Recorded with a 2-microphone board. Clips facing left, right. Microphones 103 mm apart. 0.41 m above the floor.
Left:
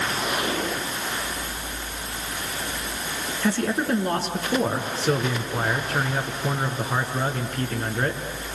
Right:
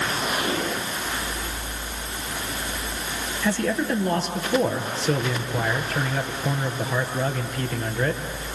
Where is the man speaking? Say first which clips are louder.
Even; 55° left (ahead or behind), 4 m.